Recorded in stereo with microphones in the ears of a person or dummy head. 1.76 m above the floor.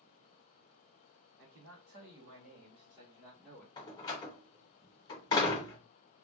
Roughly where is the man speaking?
Right.